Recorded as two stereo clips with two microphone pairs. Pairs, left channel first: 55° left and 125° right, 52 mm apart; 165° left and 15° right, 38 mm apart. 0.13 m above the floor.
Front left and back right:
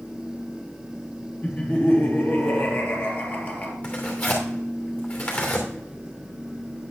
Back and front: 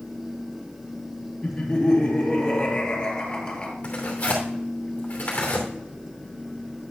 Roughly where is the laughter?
Left.